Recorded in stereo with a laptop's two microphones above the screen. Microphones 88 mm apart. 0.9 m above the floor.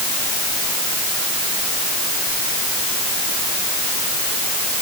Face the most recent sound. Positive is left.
No sound to turn to.